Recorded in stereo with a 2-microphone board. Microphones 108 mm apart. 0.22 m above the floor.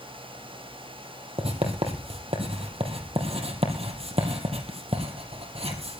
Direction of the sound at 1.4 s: 65° right (ahead or behind).